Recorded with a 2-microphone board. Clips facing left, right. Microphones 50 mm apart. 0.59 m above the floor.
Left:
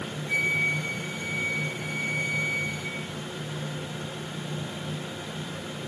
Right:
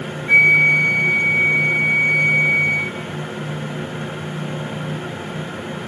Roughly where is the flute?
Right.